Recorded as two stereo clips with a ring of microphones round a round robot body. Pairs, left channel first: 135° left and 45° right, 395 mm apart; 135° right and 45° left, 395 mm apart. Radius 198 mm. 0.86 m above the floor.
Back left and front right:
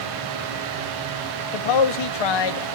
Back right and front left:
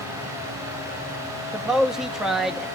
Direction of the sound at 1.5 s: 135° left.